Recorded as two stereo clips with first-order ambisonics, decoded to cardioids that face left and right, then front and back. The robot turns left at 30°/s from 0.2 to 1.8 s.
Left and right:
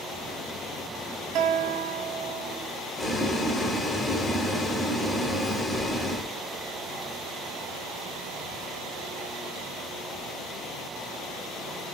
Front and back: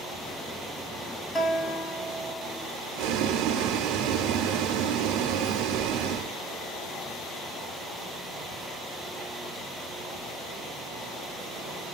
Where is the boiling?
170° left, 0.8 m.